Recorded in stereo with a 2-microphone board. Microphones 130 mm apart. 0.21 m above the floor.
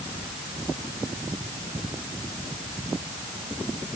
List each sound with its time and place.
Only background noise.